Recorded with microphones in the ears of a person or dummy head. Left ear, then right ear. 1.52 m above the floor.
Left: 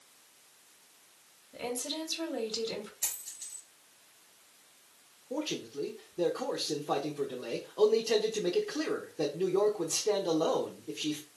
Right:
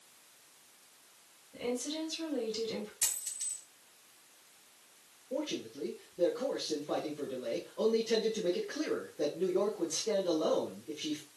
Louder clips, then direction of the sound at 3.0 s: Right 3 dB; 45° right (ahead or behind).